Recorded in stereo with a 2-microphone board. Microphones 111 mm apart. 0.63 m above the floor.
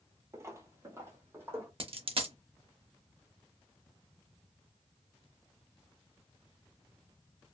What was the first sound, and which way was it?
Footsteps, 25° right (ahead or behind).